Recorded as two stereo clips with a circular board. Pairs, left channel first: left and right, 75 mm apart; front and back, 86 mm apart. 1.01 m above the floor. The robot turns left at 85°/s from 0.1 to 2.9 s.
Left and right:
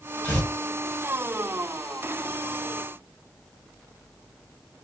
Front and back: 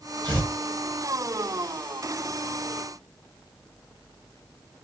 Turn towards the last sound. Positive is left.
turn(degrees=-70)